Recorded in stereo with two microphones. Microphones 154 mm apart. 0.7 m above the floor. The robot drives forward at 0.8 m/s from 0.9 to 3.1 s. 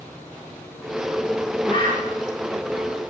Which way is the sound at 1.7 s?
30° left (ahead or behind).